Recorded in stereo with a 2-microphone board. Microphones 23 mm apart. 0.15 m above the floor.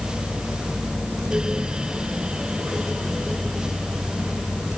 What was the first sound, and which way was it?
Only background noise.